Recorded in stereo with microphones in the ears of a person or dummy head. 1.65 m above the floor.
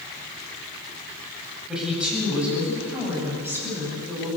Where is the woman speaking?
10° right (ahead or behind), 9.5 m; by 4.3 s 20° right (ahead or behind), 10 m.